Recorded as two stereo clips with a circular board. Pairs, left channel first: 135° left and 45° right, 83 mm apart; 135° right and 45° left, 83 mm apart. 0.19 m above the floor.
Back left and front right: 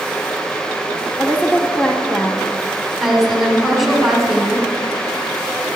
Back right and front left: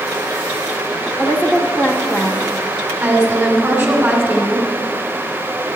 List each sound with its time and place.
1.2 s a woman speaking: 165° left, 1.0 m
3.0 s a woman speaking: 35° left, 1.5 m